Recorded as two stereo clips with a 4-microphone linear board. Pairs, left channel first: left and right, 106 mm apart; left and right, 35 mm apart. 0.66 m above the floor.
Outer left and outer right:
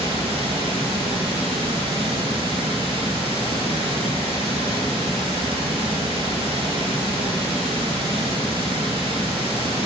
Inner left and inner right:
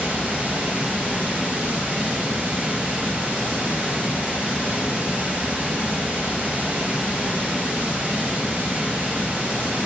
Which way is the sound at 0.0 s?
55° right (ahead or behind).